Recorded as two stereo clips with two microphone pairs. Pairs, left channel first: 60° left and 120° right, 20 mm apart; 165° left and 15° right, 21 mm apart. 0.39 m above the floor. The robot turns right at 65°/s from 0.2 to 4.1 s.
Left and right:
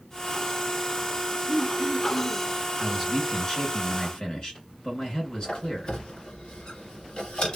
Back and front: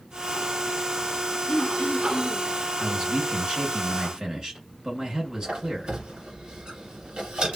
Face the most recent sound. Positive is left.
turn(degrees=20)